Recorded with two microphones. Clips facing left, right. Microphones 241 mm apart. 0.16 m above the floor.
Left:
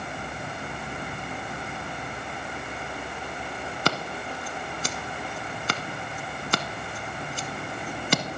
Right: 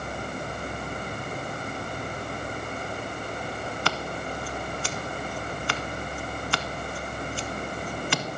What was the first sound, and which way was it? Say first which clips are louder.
Scissors: left 5 dB; 40° left (ahead or behind).